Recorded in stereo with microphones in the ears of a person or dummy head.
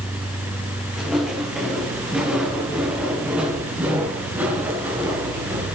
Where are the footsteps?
Centre (ahead or behind), 5.5 m; by 5.7 s 15° right (ahead or behind), 8 m.